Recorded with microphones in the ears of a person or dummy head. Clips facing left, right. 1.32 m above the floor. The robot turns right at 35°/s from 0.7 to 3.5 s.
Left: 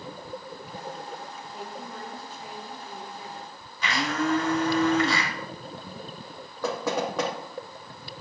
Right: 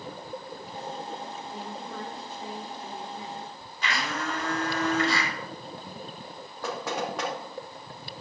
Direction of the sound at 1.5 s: 85° right.